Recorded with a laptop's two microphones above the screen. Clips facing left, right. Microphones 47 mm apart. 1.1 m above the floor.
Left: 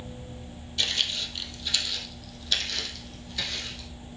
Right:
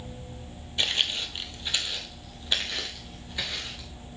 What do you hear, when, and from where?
0.8 s footsteps: 20° right (ahead or behind), 1.1 m